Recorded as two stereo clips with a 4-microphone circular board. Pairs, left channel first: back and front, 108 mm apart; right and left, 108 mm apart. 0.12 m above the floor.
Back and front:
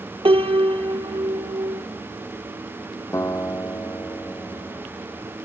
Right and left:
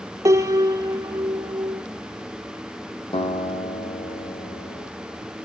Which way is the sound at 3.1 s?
120° right.